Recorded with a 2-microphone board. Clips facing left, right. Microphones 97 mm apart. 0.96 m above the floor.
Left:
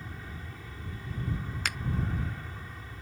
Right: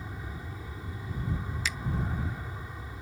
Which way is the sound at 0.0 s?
15° right (ahead or behind).